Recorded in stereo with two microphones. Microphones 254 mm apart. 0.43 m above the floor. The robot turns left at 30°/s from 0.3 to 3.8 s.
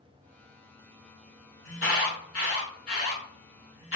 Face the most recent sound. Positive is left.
turn(degrees=55)  # may be behind; listen again after turning